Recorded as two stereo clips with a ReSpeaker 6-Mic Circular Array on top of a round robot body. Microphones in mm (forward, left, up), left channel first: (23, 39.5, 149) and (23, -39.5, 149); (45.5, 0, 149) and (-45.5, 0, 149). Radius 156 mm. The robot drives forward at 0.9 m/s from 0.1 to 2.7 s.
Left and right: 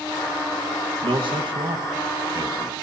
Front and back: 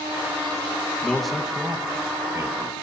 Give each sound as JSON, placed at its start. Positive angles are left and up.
{"t": 1.0, "sound": "a man speaking", "azimuth_deg": -80, "distance_m": 1.6}